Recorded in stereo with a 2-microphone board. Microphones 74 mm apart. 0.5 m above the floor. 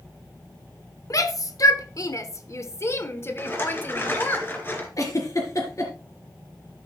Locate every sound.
1.1 s a shout: 50° left (ahead or behind), 1.2 m; by 4.4 s 25° left (ahead or behind), 2 m
3.4 s a rattle: 30° left (ahead or behind), 3 m
5.0 s a giggle: 45° left (ahead or behind), 3 m